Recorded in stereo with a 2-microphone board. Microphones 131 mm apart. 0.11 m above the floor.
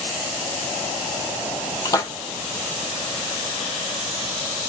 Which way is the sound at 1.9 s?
25° left (ahead or behind).